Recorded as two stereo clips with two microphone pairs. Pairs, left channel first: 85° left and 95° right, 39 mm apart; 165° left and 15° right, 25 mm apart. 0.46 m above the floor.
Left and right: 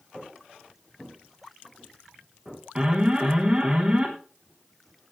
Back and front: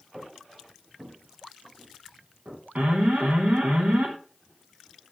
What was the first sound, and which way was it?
Footsteps, 5° left.